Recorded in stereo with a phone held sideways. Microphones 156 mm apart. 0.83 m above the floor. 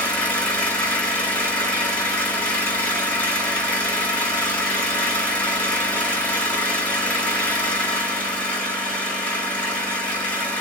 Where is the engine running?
10° left (ahead or behind), 1.6 m.